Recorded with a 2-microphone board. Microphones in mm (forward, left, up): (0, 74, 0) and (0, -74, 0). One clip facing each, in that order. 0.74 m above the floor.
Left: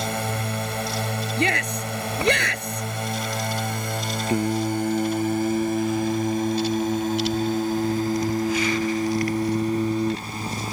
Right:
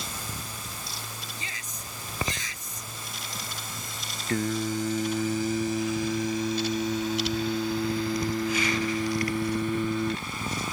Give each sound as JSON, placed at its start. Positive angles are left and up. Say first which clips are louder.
{"t": 0.0, "sound": "a drone", "louder": "left 12 dB", "side_deg": 65}
{"t": 1.4, "sound": "a shout", "louder": "left 18 dB", "side_deg": 70}
{"t": 4.3, "sound": "singing", "louder": "left 4 dB", "side_deg": 15}